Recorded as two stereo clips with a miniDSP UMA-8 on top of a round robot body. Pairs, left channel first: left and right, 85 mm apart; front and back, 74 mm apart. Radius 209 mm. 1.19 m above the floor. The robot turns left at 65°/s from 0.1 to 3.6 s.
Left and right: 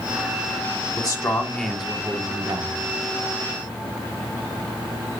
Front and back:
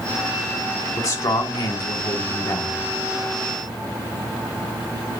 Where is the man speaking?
50° left, 1.5 m; by 2.8 s 70° right, 1.5 m.